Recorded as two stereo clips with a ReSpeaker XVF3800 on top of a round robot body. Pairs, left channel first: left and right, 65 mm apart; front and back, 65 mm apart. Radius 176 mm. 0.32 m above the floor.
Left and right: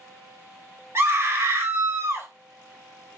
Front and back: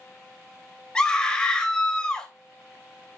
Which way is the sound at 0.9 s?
70° right.